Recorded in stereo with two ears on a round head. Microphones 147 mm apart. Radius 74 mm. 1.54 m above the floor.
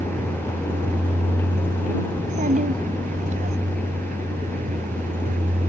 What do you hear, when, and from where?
0.0 s a vehicle: 50° right (ahead or behind)
2.1 s a child speaking: 50° right (ahead or behind)